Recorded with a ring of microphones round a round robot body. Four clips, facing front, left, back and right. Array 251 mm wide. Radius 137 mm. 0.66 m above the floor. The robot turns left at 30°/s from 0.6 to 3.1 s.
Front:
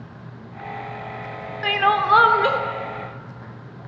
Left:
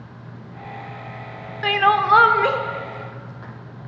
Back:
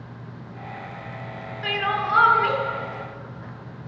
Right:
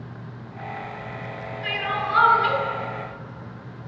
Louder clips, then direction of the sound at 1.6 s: Left 11 dB, front 6 dB; 65° left.